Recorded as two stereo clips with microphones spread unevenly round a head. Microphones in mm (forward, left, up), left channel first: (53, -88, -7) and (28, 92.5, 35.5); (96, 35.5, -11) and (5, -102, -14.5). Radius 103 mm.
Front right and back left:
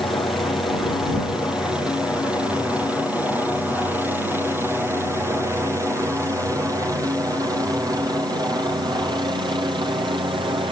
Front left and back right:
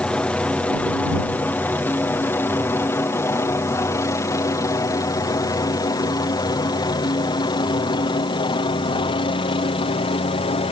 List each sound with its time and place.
0.0 s a helicopter: 20° right; by 10.7 s 30° left